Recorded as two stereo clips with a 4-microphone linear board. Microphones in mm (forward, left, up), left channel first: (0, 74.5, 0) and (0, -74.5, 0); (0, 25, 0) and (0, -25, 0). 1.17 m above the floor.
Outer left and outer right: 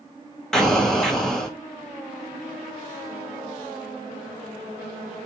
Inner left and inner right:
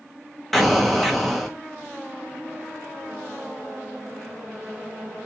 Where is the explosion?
5° left (ahead or behind), 0.8 m.